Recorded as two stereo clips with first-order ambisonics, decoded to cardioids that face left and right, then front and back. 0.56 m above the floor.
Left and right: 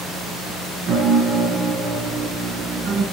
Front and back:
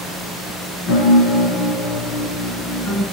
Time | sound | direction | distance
0.9 | a piano | 40° right | 4 m